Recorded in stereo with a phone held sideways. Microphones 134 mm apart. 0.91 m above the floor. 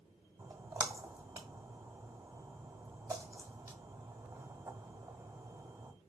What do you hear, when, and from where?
0.4 s a splash: 30° right (ahead or behind), 1.4 m